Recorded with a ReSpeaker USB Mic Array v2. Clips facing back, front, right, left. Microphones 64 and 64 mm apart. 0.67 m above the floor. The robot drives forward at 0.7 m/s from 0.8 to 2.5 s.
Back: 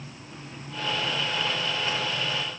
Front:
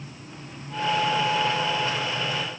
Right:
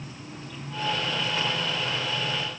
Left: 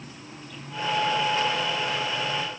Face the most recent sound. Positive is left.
No sound to turn to.